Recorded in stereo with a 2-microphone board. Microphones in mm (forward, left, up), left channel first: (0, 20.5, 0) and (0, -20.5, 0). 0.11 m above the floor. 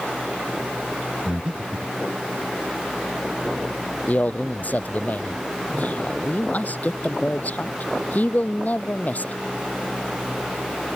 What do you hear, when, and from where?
1.2 s breathing: 20° right (ahead or behind)
4.1 s a man speaking: 45° left (ahead or behind)